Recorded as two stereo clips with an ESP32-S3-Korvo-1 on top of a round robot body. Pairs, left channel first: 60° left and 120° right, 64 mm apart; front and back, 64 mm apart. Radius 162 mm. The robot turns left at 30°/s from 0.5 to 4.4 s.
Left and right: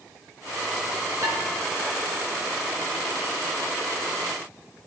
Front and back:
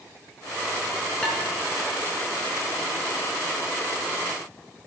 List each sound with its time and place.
1.2 s dishes clattering: 80° right, 3.5 m; by 1.4 s 85° right, 3.5 m